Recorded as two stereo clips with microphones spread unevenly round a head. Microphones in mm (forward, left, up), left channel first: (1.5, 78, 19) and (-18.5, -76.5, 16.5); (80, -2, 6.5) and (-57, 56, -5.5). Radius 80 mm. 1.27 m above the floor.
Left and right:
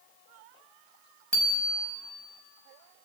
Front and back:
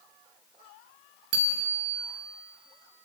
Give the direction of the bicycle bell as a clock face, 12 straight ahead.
6 o'clock.